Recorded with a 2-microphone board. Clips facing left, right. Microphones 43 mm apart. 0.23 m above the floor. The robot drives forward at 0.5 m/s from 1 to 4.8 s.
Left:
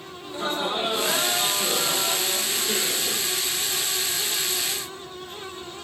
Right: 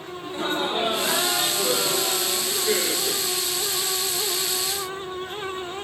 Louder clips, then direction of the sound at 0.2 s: Right 1 dB; 35° right (ahead or behind).